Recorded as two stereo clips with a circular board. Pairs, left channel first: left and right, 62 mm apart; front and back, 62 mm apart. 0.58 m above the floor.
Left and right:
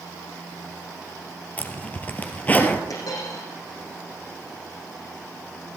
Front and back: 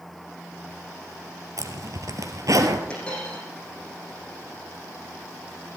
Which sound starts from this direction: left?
A dropped coin, at 2.9 s.